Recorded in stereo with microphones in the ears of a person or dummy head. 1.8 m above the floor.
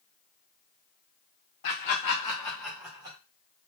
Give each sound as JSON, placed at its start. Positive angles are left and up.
{"t": 1.6, "sound": "laughter", "side_deg": 45, "distance_m": 1.0}